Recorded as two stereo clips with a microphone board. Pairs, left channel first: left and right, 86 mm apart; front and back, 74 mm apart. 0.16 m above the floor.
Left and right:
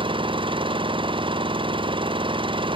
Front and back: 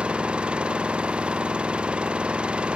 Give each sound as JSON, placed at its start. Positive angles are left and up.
{"t": 0.0, "sound": "an engine running", "azimuth_deg": -100}